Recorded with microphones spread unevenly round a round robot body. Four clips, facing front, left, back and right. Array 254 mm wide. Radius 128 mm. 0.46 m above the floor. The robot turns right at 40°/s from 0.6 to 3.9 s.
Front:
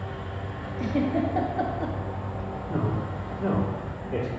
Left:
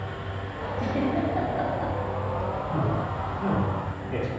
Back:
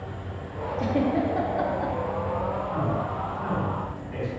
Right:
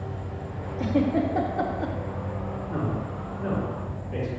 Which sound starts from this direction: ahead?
A man speaking, at 2.7 s.